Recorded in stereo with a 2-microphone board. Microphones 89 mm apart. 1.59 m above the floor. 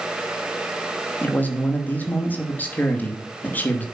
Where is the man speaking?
20° left (ahead or behind), 3 m.